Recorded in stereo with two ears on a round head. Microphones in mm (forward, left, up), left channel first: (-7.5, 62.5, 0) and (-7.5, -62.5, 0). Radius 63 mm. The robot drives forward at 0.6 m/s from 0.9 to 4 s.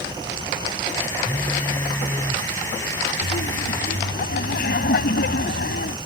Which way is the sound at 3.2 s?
80° left.